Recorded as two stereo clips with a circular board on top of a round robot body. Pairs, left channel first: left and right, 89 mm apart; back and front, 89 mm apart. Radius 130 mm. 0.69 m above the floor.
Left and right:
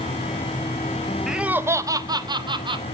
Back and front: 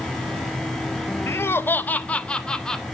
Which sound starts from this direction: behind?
Laughter, at 1.3 s.